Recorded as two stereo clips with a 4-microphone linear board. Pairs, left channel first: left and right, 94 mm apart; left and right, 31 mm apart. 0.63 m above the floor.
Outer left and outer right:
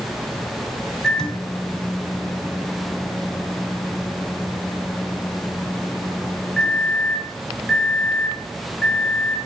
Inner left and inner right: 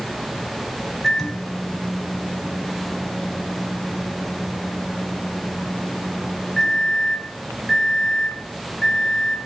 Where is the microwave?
5° left (ahead or behind), 1.6 m.